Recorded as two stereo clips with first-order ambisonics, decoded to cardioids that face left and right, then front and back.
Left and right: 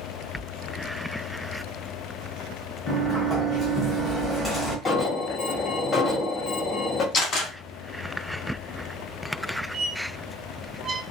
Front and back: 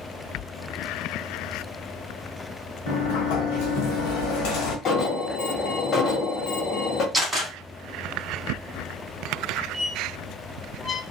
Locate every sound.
2.9 s a sliding door: 5° left, 1.1 m
4.8 s an alarm: 30° left, 0.7 m
7.1 s a camera shutter: 110° left, 1.5 m
9.7 s a squeak: 75° right, 0.5 m